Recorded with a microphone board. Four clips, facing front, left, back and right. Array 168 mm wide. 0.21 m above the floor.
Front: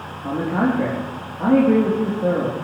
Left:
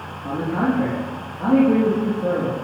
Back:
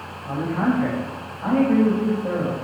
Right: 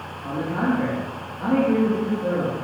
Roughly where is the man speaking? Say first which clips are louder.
Left 2 dB, front 2 dB; ahead.